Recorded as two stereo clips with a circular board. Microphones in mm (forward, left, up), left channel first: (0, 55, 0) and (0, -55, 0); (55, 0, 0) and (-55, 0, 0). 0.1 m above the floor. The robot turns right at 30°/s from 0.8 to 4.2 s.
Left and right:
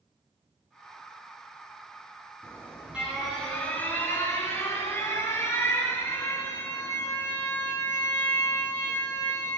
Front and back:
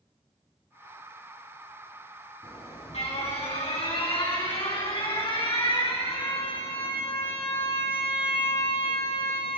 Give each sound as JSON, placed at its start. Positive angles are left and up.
{"t": 2.4, "sound": "an alarm", "azimuth_deg": -25, "distance_m": 7.0}